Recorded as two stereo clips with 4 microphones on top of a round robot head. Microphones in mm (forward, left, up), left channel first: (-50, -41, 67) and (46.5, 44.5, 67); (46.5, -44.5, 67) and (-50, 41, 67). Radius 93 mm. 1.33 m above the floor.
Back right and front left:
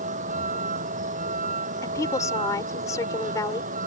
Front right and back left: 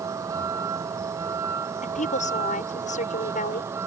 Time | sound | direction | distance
0.0 | a vehicle | 70° left | ?
1.8 | a woman speaking | 70° right | ?